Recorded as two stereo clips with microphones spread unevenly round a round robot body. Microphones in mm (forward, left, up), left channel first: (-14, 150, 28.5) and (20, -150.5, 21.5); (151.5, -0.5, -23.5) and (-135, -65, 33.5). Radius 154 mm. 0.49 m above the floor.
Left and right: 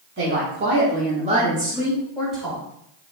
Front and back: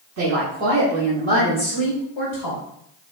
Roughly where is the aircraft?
No aircraft in this recording.